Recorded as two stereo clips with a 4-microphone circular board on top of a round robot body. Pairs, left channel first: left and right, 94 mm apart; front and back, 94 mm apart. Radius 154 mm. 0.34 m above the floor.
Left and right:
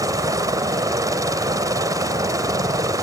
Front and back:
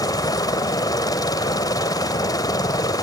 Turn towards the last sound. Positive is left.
turn(degrees=-45)